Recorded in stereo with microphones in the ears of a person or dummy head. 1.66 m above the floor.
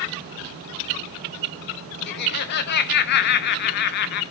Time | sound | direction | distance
2.1 | laughter | 55° left (ahead or behind) | 1.1 m